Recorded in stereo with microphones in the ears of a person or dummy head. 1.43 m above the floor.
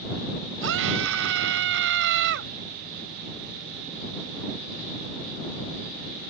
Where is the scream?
75° right (ahead or behind); by 2.5 s 65° right (ahead or behind).